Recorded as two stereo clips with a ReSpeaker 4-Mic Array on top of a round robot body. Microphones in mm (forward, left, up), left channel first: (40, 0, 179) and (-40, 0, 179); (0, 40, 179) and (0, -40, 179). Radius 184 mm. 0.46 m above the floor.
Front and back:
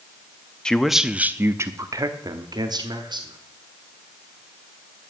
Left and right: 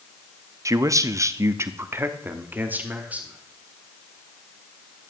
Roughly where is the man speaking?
Right.